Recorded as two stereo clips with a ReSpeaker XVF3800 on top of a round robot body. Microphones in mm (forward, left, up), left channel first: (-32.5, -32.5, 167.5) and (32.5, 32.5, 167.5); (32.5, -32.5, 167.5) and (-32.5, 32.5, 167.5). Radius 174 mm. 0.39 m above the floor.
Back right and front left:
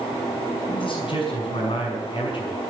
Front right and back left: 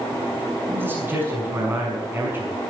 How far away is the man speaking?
About 5.5 m.